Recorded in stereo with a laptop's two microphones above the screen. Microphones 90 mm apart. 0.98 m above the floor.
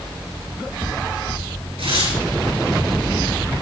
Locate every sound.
1.8 s tearing paper: 85° right, 8 m